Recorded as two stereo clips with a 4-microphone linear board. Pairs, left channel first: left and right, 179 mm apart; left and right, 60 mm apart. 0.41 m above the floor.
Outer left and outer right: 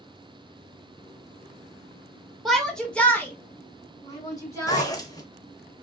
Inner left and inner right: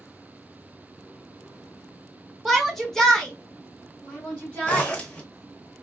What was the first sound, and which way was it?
A shout, centre (ahead or behind).